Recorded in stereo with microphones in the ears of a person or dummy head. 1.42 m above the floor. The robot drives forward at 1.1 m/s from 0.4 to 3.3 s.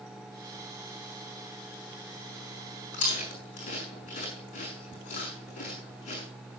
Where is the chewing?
45° left (ahead or behind), 6 m; by 6.2 s 40° left (ahead or behind), 6.5 m.